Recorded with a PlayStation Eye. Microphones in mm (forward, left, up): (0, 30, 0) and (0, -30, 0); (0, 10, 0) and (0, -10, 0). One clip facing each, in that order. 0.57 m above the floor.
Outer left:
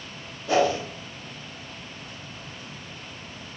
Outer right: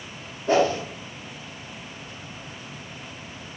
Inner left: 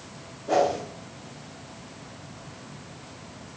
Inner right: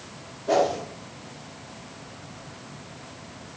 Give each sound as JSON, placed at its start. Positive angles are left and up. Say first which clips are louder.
{"t": 0.5, "sound": "a whoosh", "louder": "outer right 1 dB, inner right 1 dB", "side_deg": -40, "distance_m": 0.7}